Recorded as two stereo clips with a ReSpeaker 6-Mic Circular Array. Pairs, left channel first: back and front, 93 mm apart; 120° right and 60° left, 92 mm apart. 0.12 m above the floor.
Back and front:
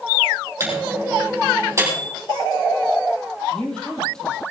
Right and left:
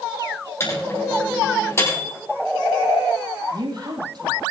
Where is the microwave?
60° right, 4.5 m.